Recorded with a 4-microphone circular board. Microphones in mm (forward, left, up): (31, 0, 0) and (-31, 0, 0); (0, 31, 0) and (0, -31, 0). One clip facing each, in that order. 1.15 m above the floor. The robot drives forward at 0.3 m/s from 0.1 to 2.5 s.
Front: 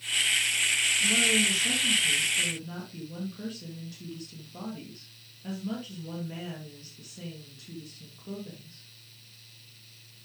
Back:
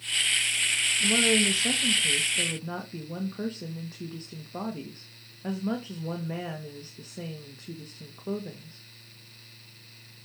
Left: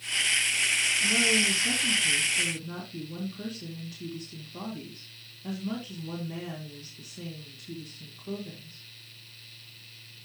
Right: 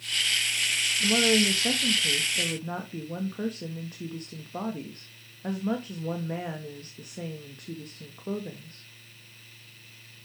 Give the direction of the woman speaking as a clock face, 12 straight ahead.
4 o'clock.